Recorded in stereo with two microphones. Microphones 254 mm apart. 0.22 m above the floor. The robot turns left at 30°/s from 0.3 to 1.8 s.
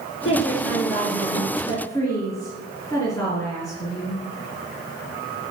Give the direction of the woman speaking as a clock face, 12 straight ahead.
10 o'clock.